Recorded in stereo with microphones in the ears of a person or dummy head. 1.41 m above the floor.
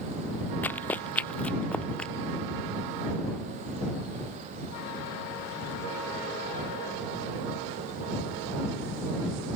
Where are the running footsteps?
10° left (ahead or behind); by 2.1 s 5° left (ahead or behind).